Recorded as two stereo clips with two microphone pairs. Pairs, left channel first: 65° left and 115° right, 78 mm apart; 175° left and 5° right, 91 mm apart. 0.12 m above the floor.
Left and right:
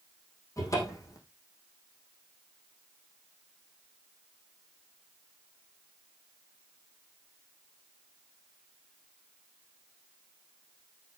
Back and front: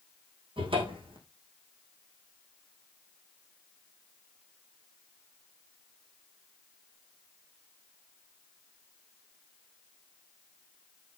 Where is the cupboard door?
15° left, 4.5 m.